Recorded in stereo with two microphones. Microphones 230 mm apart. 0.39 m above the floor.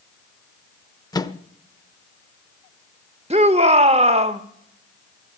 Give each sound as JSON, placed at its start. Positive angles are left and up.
{"t": 1.1, "sound": "a microwave", "side_deg": 15, "distance_m": 0.6}
{"t": 3.3, "sound": "a shout", "side_deg": -25, "distance_m": 0.8}